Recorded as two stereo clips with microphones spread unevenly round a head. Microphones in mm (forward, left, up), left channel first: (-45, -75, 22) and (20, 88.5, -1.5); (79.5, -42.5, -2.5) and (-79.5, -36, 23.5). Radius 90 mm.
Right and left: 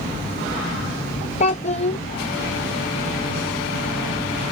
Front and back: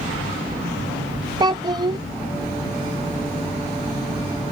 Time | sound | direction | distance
1.4 | a child speaking | 140° right | ?